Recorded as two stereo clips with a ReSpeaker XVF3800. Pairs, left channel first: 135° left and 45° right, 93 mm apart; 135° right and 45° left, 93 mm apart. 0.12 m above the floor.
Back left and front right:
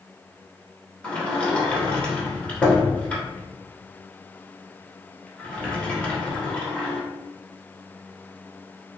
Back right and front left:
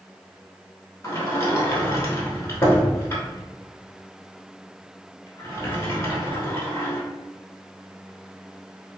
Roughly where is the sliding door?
Behind.